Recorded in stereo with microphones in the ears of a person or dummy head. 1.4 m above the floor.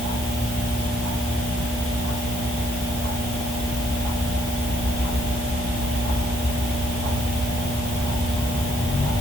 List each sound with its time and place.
Only background noise.